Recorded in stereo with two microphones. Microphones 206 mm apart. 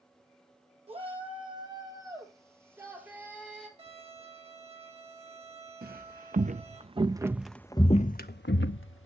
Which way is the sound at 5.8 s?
45° right (ahead or behind).